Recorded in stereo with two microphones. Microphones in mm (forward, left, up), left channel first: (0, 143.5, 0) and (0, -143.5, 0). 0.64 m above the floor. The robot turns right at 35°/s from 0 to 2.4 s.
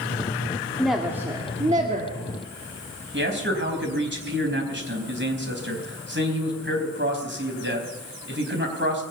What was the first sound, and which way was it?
A woman speaking, 175° left.